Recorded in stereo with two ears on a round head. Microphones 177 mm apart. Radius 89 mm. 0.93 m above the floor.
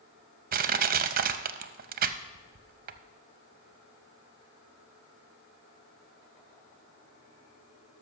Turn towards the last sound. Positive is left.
turn(degrees=-45)  # may be behind; listen again after turning